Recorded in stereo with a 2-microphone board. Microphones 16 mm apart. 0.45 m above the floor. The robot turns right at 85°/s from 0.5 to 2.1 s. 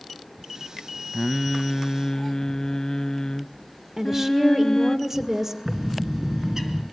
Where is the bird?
25° right (ahead or behind), 2.5 m.